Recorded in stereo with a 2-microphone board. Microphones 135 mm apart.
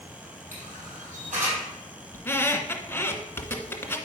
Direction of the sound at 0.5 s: 80° right.